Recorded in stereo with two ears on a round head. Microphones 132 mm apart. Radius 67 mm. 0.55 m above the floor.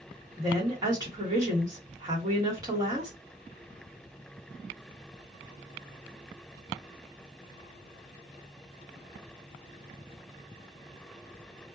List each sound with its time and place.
0.4 s a woman speaking: 25° right (ahead or behind), 1.4 m